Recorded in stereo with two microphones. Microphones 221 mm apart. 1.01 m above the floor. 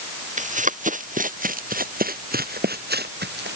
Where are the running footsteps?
35° right (ahead or behind); by 3.6 s 50° right (ahead or behind).